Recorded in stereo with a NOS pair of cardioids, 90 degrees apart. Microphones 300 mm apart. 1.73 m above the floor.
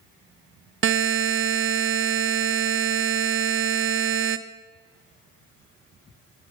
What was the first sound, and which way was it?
A buzzer, 45° right.